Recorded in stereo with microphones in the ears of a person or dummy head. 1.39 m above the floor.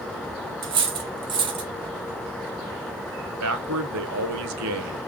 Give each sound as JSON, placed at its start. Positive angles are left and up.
{"t": 0.6, "sound": "cutlery clinking", "side_deg": -25, "distance_m": 0.7}
{"t": 3.4, "sound": "a man speaking", "side_deg": -65, "distance_m": 0.6}